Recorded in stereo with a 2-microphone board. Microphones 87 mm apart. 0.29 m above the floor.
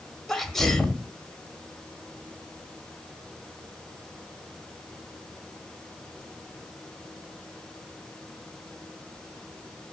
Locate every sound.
0.3 s a sneeze: 5° left (ahead or behind), 1.3 m